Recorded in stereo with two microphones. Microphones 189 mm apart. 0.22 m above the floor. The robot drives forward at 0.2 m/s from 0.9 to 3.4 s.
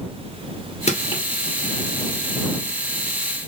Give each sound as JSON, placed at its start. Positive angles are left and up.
{"t": 0.9, "sound": "crushing", "side_deg": 35, "distance_m": 1.7}